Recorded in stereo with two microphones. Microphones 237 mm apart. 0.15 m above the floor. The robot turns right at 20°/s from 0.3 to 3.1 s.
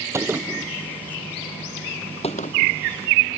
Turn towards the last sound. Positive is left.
turn(degrees=45)  # may be behind; listen again after turning